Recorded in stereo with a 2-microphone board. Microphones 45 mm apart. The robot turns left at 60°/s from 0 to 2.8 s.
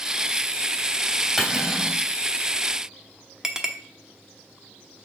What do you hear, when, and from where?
1.4 s cutlery clinking: 5° right, 2.5 m; by 2.0 s 45° right, 2.5 m
3.4 s a clink: 15° right (ahead or behind), 0.8 m